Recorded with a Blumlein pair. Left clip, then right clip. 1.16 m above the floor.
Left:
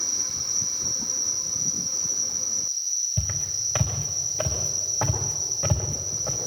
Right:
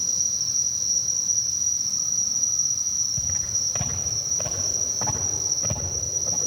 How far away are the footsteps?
About 7 m.